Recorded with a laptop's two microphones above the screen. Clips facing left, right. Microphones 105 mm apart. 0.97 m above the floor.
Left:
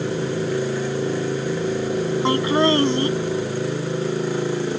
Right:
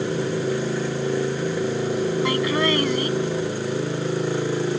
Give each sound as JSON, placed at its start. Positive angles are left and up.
{"t": 2.2, "sound": "laughter", "side_deg": 30}